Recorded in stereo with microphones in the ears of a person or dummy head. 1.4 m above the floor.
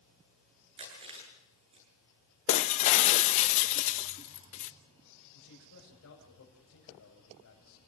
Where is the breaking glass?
35° left (ahead or behind), 0.8 m.